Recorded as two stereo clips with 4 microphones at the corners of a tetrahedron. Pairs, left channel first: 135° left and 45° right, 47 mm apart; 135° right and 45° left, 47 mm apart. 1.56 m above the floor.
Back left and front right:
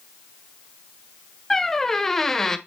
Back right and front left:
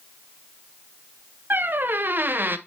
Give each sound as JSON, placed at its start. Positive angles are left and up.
{"t": 1.5, "sound": "a squeak", "azimuth_deg": 55, "distance_m": 0.6}